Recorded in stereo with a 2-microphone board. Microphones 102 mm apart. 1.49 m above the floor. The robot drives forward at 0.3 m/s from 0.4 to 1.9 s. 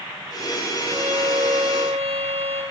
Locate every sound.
0.8 s a violin: 75° right (ahead or behind), 6 m; by 2.6 s 80° right, 6 m